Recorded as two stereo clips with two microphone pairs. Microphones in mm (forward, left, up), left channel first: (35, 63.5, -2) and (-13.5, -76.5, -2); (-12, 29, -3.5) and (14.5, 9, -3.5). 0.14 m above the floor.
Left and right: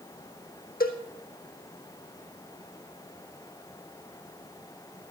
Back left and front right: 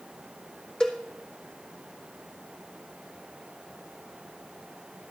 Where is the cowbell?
75° left, 1.4 m.